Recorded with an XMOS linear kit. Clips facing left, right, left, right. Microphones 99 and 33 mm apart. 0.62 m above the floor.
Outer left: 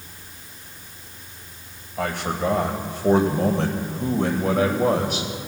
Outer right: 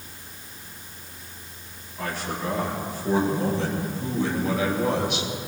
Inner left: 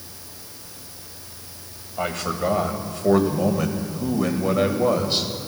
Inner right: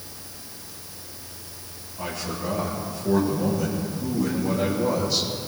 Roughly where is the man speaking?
Left.